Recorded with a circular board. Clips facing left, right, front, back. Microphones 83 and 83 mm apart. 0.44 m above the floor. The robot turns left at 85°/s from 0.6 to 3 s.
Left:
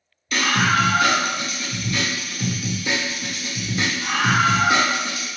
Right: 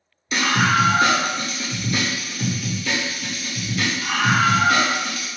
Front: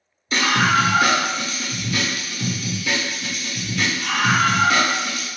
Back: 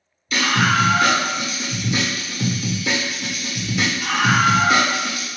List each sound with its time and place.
0.3 s a scream: 30° right, 1.0 m; by 5.3 s 125° left, 1.0 m